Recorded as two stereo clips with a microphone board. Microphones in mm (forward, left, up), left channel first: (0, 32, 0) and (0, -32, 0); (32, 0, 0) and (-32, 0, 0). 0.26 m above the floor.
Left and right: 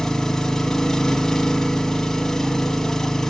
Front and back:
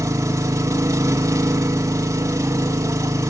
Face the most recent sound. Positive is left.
turn(degrees=175)